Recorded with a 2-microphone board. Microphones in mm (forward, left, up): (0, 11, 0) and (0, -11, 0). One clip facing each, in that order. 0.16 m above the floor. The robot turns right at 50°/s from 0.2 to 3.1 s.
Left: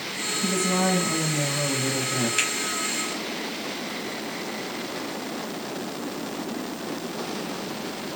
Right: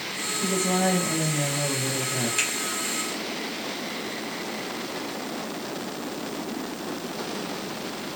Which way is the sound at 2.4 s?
30° left (ahead or behind).